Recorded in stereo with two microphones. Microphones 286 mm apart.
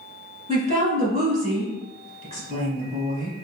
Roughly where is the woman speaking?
Right.